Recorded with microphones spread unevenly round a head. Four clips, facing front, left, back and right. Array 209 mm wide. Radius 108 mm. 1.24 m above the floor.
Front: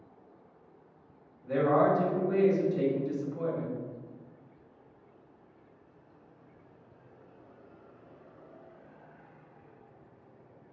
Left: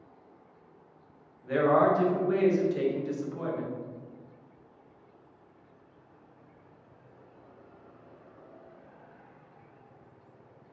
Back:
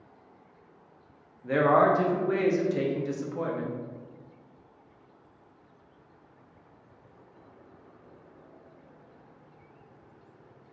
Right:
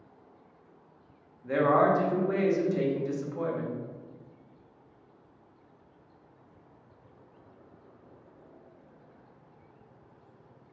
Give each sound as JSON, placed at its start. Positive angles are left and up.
{"t": 1.4, "sound": "a man speaking", "azimuth_deg": -165, "distance_m": 1.0}